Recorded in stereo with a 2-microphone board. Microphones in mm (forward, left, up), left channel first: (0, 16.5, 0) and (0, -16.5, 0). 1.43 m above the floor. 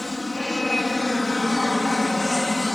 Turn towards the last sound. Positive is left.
turn(degrees=5)  # may be behind; listen again after turning